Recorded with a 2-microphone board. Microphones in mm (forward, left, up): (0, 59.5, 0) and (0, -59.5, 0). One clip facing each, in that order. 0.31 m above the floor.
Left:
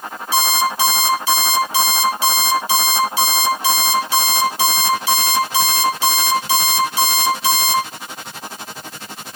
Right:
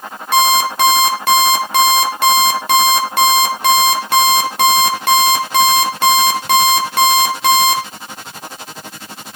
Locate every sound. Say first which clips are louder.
0.3 s an alarm clock: right 5 dB; 60° right (ahead or behind), 3 m